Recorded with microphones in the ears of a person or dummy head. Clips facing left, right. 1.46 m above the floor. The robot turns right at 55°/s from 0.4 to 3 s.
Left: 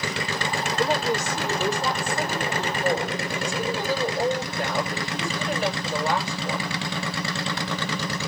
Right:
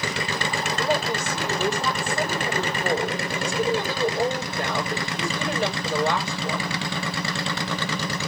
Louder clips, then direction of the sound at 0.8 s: Left 1 dB; 175° right.